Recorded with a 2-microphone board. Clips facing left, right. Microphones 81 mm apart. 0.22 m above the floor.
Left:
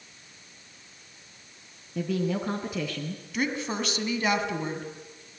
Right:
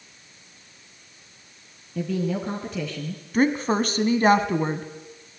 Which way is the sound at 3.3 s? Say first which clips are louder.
Right 9 dB; 40° right (ahead or behind).